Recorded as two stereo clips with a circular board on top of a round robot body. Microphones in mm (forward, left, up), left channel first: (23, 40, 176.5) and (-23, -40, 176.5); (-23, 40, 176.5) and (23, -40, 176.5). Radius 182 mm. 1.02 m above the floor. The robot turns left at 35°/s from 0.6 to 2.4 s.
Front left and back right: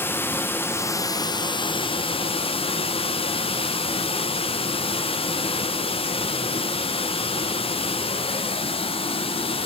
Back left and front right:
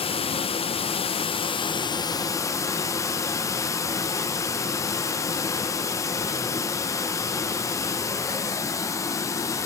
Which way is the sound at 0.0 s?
125° left.